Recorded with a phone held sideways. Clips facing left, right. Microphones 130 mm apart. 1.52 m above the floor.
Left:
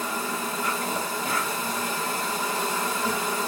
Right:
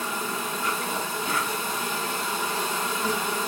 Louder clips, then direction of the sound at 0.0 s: Left 1 dB; 35° left (ahead or behind).